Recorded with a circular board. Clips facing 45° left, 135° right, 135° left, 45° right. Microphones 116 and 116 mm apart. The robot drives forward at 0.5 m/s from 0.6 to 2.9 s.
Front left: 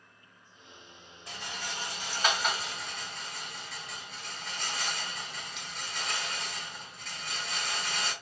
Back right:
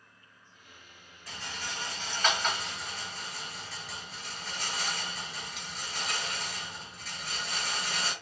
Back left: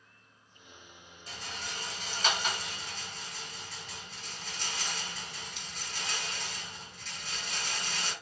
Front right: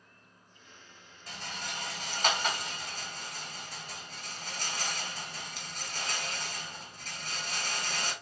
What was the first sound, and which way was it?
A rattle, 20° right.